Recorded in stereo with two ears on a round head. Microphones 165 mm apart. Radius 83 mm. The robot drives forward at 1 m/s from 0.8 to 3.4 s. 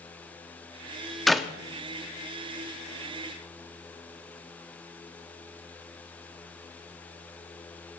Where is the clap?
Centre (ahead or behind), 0.5 m.